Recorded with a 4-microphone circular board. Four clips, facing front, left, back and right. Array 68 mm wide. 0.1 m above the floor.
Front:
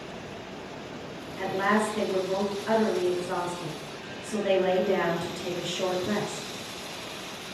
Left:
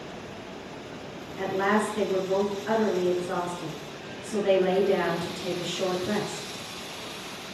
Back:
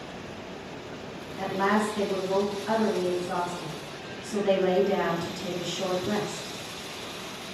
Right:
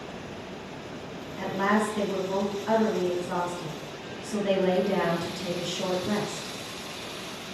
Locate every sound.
1.4 s a woman speaking: 40° left, 1.2 m